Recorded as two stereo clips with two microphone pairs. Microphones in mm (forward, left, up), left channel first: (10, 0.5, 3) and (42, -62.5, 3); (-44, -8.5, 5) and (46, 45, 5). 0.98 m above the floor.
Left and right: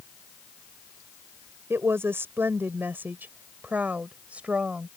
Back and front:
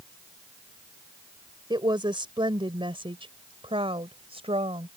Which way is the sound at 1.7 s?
10° right.